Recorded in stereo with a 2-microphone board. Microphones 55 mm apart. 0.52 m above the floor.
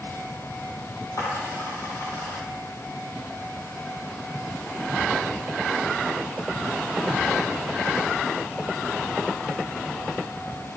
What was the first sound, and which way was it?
A dropped coin, 80° left.